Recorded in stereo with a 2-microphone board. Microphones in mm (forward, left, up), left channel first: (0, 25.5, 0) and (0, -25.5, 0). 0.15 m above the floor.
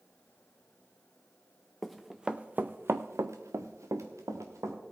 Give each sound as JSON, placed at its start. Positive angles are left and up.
{"t": 1.8, "sound": "running footsteps", "side_deg": 5, "distance_m": 0.9}